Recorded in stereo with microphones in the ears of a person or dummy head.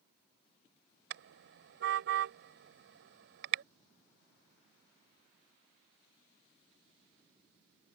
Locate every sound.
1.1 s a car horn: 75° right (ahead or behind)